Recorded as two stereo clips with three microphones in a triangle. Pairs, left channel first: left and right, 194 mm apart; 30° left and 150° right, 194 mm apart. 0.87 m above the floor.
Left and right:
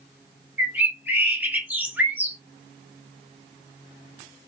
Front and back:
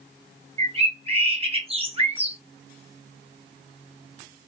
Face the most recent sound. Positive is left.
turn(degrees=-165)